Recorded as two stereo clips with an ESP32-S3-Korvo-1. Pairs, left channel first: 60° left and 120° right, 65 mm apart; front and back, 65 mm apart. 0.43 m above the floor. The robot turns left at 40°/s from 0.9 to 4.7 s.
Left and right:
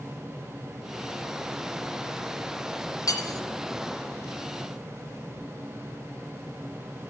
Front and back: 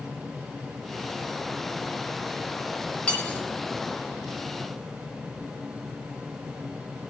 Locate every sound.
3.1 s cutlery clinking: 70° left, 2 m; by 3.4 s 55° left, 2 m